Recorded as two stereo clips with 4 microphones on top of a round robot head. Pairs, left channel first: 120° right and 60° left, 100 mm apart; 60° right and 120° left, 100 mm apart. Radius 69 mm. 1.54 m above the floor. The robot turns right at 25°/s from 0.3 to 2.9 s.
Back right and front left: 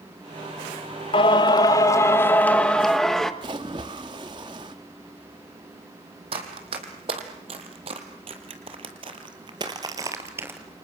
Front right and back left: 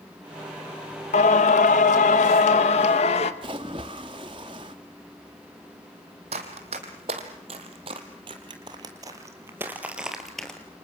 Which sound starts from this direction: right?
Singing, at 1.1 s.